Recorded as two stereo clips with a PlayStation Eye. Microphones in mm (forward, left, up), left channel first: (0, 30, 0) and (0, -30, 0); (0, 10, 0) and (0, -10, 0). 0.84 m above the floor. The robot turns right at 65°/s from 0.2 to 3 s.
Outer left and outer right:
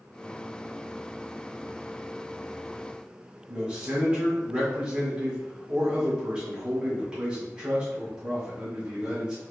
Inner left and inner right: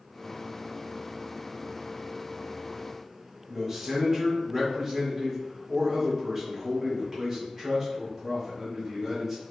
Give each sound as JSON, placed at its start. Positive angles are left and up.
{"t": 3.5, "sound": "a man speaking", "side_deg": -15, "distance_m": 1.8}